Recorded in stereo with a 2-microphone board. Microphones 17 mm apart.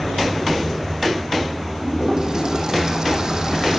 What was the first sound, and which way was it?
A toilet flushing, 40° right (ahead or behind).